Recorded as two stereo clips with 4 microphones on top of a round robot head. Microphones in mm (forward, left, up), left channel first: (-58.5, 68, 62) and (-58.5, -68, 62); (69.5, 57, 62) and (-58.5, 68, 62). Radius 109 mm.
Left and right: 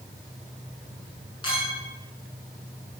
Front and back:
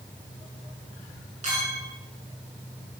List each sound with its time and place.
1.4 s a clink: 145° left, 8.5 m